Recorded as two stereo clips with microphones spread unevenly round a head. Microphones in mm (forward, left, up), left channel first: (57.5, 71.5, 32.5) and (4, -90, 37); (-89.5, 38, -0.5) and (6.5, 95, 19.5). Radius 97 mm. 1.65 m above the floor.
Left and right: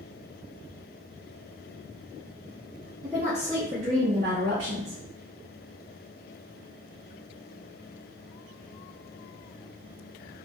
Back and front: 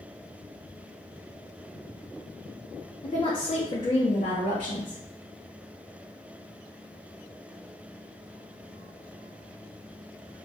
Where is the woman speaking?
160° left, 0.9 m; by 5.0 s 120° right, 1.2 m.